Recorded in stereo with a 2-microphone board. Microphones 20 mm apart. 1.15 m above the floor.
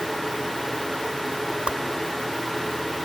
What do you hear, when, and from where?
1.7 s a whoosh: 75° right (ahead or behind)